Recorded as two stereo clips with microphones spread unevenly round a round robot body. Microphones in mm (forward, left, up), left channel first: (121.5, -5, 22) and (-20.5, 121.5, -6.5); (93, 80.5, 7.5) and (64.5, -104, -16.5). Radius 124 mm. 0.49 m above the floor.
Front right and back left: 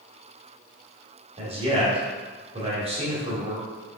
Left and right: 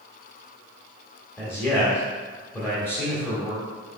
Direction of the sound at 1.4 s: 165° left.